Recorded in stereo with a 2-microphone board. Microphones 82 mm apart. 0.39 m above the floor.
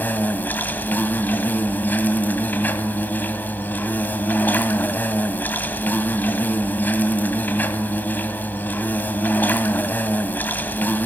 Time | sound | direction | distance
0.0 | an insect | 25° left (ahead or behind) | 1.5 m